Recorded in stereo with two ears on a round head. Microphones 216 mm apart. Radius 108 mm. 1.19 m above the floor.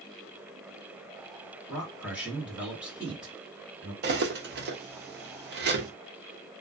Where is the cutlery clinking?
45° right (ahead or behind), 0.7 m.